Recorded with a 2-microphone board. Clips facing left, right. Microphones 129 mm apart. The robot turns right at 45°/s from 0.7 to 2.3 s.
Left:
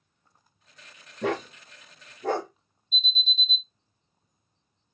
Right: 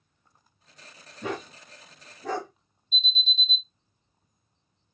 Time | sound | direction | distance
1.2 | a dog barking | 75° left (ahead or behind) | 1.2 m
2.9 | an alarm | 45° left (ahead or behind) | 1.9 m